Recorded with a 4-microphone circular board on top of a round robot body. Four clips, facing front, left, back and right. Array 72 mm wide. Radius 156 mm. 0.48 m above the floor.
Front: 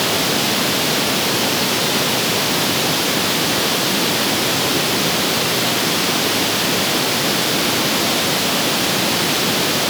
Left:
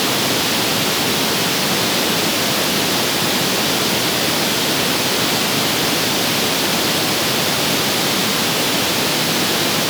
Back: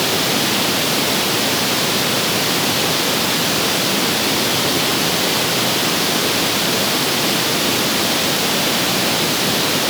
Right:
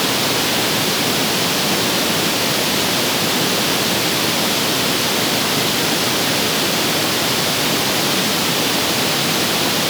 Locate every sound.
Only background noise.